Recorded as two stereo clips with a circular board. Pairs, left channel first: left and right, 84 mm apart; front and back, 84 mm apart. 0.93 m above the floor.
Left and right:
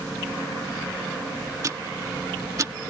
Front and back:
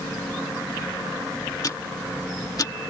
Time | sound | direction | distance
1.6 | ticking | 45° right | ?